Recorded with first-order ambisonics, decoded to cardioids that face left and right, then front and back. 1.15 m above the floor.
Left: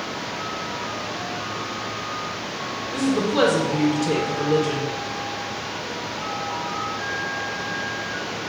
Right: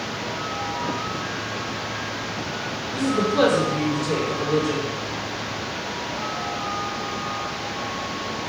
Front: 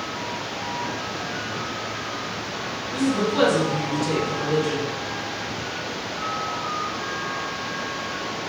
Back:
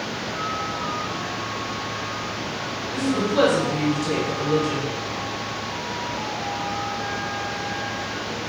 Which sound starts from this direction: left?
A woman speaking, at 2.9 s.